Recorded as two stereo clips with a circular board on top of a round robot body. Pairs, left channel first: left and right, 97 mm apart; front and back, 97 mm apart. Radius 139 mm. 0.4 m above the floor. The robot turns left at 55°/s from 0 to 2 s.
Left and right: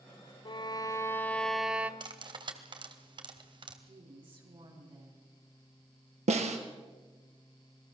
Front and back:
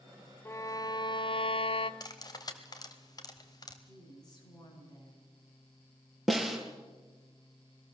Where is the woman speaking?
55° right, 6.5 m.